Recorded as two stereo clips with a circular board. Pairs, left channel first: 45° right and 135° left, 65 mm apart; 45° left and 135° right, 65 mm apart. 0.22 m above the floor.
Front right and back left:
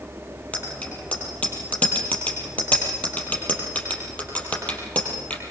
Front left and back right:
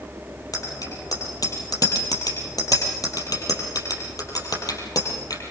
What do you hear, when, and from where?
0.5 s a bicycle bell: 25° left, 4.5 m